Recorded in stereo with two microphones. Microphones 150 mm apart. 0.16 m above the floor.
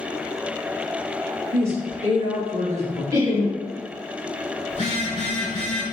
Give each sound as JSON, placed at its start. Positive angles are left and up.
{"t": 1.5, "sound": "a woman speaking", "side_deg": -45, "distance_m": 1.7}
{"t": 3.1, "sound": "laughter", "side_deg": -25, "distance_m": 1.8}
{"t": 4.7, "sound": "a phone buzzing", "side_deg": 45, "distance_m": 0.8}